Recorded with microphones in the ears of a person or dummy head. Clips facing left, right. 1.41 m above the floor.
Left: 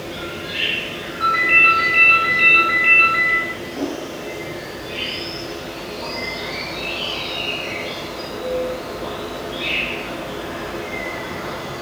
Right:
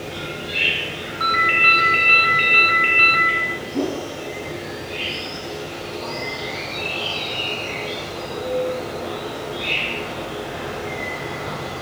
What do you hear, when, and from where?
0.0 s an insect: 70° left (ahead or behind), 2 m
1.2 s a ringtone: 45° right (ahead or behind), 1.1 m
3.7 s a whoosh: 60° right (ahead or behind), 1.7 m